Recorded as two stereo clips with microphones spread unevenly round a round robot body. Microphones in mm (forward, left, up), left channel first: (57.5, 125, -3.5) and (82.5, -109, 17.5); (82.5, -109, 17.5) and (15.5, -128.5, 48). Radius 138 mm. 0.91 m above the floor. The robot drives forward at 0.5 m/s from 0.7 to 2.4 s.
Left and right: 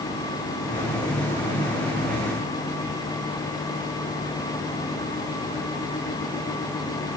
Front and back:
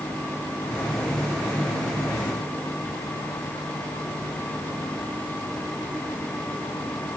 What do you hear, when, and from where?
Only background noise.